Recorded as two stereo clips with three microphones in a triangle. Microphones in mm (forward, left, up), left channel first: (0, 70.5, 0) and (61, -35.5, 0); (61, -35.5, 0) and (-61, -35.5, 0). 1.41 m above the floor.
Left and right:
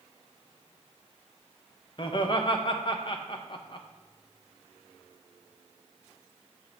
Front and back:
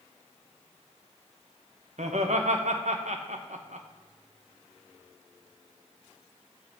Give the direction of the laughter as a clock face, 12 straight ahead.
6 o'clock.